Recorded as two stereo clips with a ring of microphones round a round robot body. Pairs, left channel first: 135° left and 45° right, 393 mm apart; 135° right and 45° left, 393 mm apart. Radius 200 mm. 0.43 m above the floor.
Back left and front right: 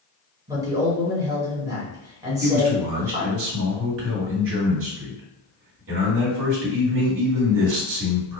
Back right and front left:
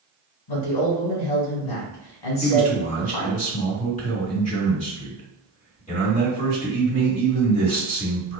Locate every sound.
0.5 s a man speaking: 125° right, 1.9 m
2.4 s a man speaking: 75° right, 1.5 m